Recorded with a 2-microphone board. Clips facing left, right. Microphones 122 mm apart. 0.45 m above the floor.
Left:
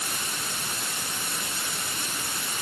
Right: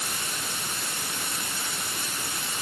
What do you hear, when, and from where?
Only background noise.